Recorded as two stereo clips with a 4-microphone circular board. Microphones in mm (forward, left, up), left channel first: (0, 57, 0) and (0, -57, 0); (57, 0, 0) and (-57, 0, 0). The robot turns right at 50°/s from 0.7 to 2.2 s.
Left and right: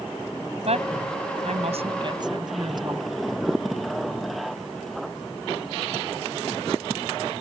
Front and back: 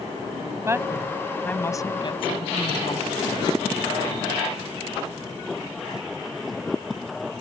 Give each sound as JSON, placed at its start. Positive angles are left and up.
{"t": 0.7, "sound": "a woman speaking", "azimuth_deg": -115}